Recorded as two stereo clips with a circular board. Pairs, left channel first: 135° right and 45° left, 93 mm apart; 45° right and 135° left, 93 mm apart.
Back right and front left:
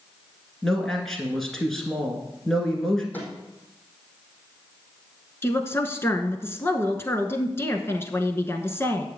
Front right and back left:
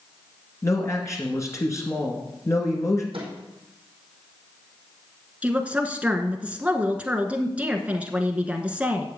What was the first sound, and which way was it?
A man speaking, 50° right.